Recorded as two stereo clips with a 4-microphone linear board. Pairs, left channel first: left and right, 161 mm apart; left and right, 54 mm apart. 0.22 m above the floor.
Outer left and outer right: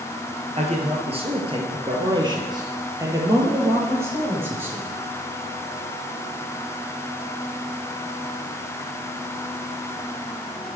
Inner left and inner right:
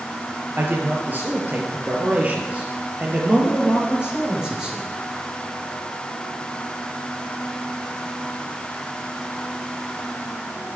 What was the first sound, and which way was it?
A man speaking, 45° right (ahead or behind).